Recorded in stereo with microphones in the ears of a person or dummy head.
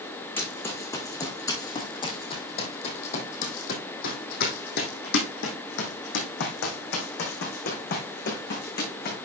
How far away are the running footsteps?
About 3.5 m.